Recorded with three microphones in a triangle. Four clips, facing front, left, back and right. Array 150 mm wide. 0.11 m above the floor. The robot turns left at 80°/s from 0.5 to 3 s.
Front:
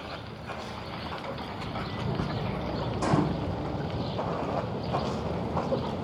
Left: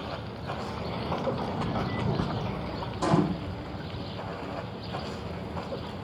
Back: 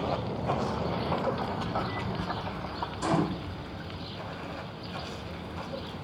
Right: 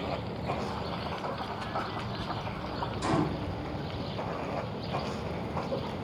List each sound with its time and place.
0.0 s running water: 165° right, 1.1 m; by 6.0 s 5° right, 1.1 m
3.0 s a gunshot: 50° left, 4.5 m